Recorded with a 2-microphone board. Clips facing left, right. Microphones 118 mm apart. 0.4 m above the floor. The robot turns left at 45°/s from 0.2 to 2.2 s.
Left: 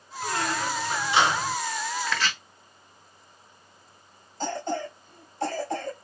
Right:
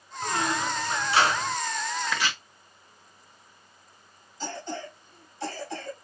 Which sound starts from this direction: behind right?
A squeak, at 0.2 s.